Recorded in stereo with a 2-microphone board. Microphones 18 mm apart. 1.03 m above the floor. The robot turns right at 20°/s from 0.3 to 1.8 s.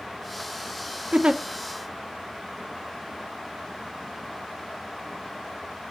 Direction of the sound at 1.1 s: 55° right (ahead or behind).